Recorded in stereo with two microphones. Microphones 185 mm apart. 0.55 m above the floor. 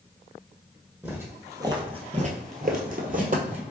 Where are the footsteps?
10° right (ahead or behind), 1.2 m; by 3.6 s 45° right (ahead or behind), 1.1 m.